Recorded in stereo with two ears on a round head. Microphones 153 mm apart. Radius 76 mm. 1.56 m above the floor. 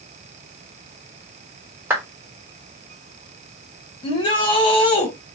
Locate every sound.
1.9 s a clap: 15° right (ahead or behind), 3.5 m
4.0 s a shout: 25° left (ahead or behind), 2 m